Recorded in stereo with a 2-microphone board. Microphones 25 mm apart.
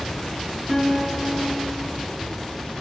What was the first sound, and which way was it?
A guitar, 15° left (ahead or behind).